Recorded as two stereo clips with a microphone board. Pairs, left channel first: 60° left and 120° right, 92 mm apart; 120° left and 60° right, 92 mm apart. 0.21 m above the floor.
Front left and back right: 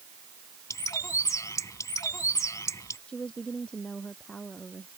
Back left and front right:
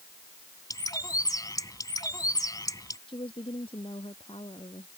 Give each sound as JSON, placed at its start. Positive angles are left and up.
{"t": 0.7, "sound": "a bird", "azimuth_deg": 95}
{"t": 3.1, "sound": "a woman speaking", "azimuth_deg": 140}